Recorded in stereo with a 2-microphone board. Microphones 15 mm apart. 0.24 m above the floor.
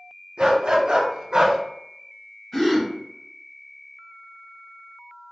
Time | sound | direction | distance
0.4 | a dog barking | 75° right (ahead or behind) | 1.3 m
2.5 | a gasp | 30° left (ahead or behind) | 1.5 m